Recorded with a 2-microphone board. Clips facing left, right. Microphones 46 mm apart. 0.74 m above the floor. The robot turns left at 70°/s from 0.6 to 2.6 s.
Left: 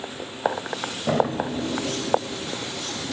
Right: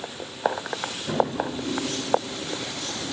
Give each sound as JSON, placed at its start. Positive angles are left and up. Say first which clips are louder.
{"t": 1.1, "sound": "a drawer", "louder": "left 2 dB", "side_deg": 85, "distance_m": 1.6}